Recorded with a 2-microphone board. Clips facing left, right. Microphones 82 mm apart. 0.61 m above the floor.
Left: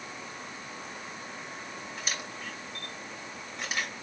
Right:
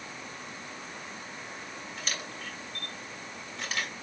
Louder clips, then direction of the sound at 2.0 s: Even; 10° left (ahead or behind).